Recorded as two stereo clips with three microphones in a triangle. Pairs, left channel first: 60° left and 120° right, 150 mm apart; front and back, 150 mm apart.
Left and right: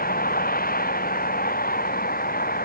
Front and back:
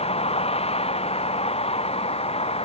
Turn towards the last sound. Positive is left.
turn(degrees=50)